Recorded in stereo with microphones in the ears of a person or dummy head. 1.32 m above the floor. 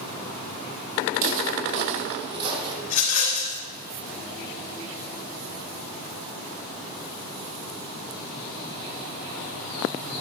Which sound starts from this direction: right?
Footsteps, at 1.1 s.